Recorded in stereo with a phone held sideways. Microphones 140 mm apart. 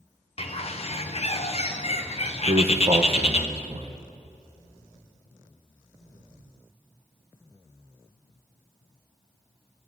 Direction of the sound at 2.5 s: 45° right (ahead or behind).